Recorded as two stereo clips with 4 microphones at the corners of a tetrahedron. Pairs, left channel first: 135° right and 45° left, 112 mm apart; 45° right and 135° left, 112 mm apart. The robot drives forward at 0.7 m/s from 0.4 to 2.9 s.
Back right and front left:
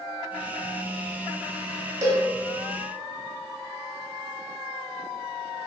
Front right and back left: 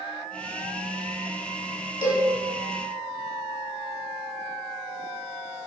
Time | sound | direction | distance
2.0 | a cowbell | 5° left | 1.2 m